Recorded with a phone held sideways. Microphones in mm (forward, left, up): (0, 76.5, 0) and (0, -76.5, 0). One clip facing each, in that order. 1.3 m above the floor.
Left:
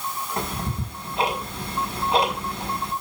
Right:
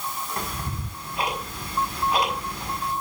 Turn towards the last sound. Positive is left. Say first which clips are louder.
# left 3 dB
turn(degrees=30)  # may be behind; listen again after turning